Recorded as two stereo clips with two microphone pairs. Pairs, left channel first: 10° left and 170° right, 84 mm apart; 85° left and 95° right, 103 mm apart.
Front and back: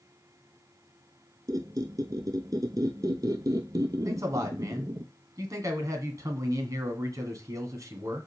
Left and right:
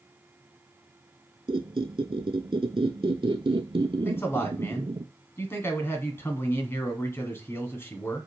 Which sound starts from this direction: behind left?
A man speaking, at 4.0 s.